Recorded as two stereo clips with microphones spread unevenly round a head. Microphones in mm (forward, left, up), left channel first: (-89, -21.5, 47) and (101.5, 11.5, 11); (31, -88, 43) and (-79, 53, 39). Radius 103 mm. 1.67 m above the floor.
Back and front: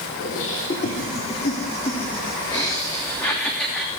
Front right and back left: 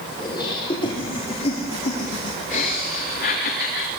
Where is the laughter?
120° right, 4 m; by 3.9 s 85° right, 2.5 m.